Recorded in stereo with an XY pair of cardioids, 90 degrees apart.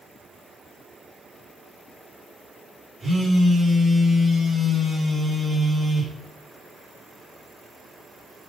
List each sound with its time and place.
3.0 s a phone buzzing: 35° right, 1.4 m